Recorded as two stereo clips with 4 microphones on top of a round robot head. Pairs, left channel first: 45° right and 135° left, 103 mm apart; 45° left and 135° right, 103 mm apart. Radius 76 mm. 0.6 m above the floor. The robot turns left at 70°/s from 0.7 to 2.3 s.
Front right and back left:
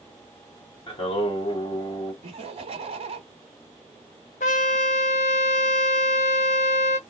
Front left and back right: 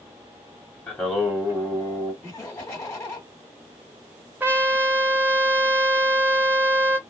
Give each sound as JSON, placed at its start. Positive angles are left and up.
{"t": 0.9, "sound": "singing", "azimuth_deg": -30, "distance_m": 2.0}
{"t": 2.2, "sound": "laughter", "azimuth_deg": 125, "distance_m": 1.3}
{"t": 4.4, "sound": "a trumpet", "azimuth_deg": -60, "distance_m": 0.6}